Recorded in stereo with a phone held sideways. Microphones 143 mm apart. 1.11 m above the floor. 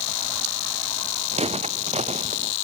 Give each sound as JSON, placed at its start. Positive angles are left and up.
{"t": 1.3, "sound": "footsteps", "side_deg": -50}